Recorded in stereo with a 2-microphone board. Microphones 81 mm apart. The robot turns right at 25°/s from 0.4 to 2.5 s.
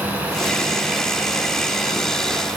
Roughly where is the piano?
No piano in this recording.